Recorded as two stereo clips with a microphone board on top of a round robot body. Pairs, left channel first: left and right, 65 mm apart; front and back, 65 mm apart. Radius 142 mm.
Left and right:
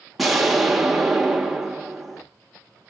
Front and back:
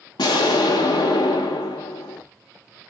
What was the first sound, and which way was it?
An explosion, straight ahead.